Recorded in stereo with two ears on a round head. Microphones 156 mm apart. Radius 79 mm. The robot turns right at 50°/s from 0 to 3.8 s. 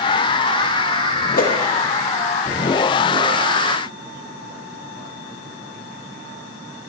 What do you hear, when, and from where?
1.3 s a whoosh: 50° left (ahead or behind), 0.7 m